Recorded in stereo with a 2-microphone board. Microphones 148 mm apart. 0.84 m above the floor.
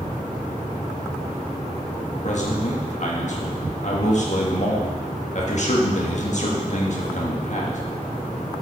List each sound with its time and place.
2.2 s a man speaking: 55° left (ahead or behind), 1.4 m